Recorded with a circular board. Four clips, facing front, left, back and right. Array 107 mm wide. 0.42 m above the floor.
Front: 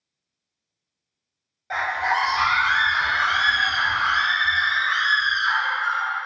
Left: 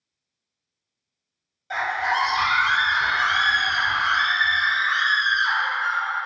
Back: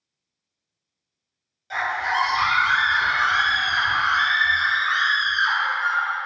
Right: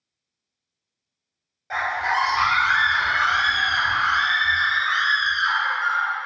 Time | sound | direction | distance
1.7 | a scream | 35° right | 1.6 m